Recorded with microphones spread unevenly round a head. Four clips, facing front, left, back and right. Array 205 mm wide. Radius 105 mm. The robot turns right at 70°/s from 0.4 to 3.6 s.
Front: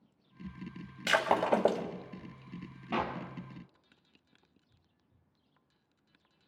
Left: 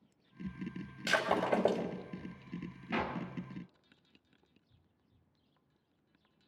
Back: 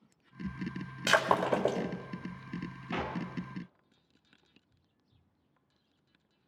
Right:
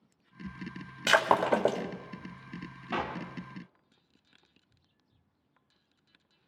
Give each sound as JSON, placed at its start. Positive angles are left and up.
{"t": 1.1, "sound": "breaking glass", "azimuth_deg": -90, "distance_m": 2.0}
{"t": 2.9, "sound": "a clap", "azimuth_deg": -55, "distance_m": 2.5}